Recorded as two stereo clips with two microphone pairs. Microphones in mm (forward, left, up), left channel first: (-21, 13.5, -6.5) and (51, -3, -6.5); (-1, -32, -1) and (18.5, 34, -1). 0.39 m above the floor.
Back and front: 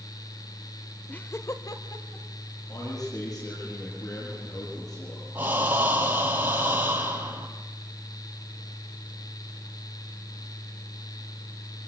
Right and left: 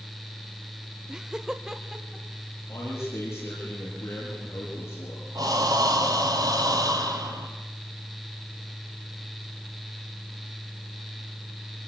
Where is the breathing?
50° left, 3.5 m.